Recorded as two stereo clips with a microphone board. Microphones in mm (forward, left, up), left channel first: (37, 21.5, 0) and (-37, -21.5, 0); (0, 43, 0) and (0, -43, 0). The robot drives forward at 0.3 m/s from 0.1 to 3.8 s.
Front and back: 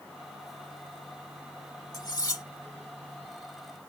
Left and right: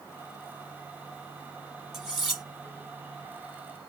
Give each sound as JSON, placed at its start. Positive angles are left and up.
{"t": 1.9, "sound": "cutlery clinking", "azimuth_deg": 0, "distance_m": 1.3}